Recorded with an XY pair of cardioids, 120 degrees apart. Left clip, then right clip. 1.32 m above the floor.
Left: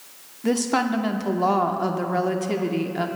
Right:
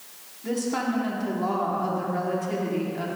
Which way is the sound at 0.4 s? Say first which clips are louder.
Left 5 dB; 50° left.